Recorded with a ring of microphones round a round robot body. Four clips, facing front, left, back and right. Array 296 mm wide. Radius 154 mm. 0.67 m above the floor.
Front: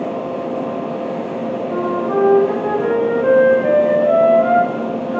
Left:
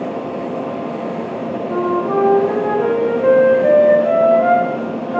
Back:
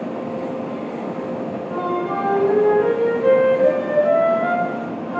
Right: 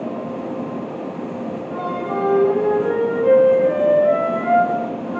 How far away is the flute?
About 4.5 m.